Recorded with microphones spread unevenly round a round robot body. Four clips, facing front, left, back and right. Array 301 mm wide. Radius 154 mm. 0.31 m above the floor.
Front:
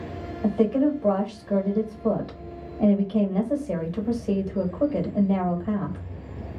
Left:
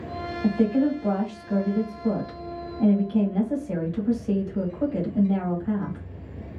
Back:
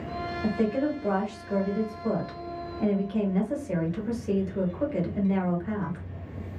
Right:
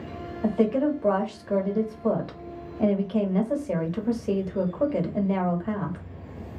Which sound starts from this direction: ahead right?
A woman speaking, at 0.4 s.